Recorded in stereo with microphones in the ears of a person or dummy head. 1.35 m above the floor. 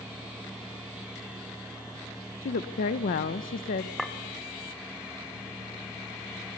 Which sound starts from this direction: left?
A woman speaking, at 2.4 s.